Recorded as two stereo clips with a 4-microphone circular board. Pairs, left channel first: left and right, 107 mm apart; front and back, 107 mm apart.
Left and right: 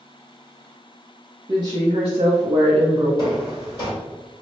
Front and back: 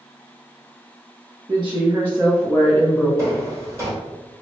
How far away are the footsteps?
About 2.0 m.